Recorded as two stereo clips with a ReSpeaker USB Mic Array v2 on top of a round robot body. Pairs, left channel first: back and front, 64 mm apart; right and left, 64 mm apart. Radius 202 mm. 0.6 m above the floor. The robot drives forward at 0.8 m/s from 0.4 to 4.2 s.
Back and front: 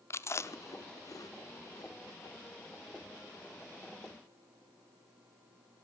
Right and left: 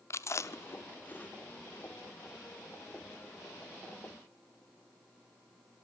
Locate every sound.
0.1 s chewing: 130° right, 1.0 m; by 1.9 s 160° right, 2.0 m